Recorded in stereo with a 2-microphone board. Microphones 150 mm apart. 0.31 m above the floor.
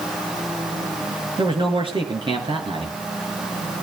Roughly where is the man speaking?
Right.